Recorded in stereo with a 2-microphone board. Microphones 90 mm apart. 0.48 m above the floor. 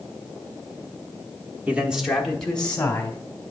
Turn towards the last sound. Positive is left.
turn(degrees=20)  # may be behind; listen again after turning